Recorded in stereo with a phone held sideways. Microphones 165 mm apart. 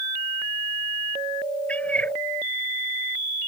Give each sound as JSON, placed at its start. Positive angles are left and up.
{"t": 1.7, "sound": "a cat meowing", "side_deg": 10}